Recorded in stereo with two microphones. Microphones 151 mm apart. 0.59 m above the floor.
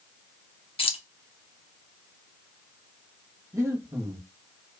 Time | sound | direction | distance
0.8 | keys jangling | 35° left (ahead or behind) | 0.5 m
3.5 | breathing | 25° right (ahead or behind) | 1.0 m